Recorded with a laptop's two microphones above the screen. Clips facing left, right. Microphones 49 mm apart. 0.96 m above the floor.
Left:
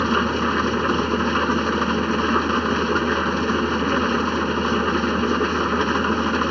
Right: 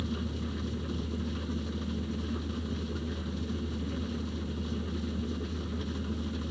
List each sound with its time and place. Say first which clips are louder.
0.0 s an engine running: left 17 dB; 70° left (ahead or behind)